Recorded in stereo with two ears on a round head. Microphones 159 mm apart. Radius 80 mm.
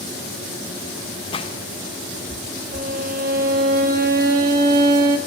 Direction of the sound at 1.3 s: 30° left (ahead or behind).